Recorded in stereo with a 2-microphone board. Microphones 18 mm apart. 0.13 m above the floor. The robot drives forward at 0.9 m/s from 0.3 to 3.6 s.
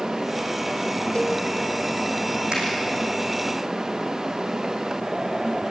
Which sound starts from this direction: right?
A finger snap, at 2.5 s.